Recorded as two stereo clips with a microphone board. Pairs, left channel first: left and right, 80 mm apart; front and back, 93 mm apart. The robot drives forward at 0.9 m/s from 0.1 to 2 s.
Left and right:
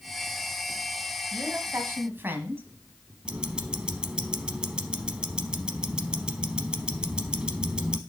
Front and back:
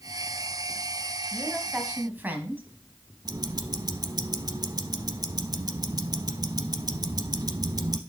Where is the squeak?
I don't hear a squeak.